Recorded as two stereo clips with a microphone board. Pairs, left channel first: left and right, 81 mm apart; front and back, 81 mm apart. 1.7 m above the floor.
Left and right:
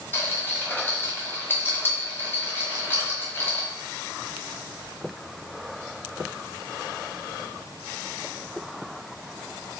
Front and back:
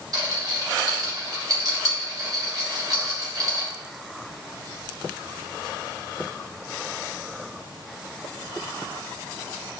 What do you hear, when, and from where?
0.1 s a rattle: 150° left, 0.7 m